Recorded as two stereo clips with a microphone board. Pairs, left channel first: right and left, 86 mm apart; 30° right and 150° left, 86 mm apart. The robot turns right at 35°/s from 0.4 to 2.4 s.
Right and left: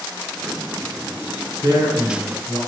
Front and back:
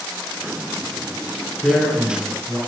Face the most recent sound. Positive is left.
turn(degrees=90)